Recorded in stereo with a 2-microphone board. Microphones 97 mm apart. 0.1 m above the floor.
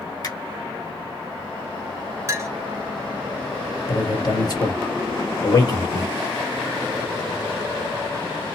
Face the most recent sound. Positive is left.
turn(degrees=45)  # may be behind; listen again after turning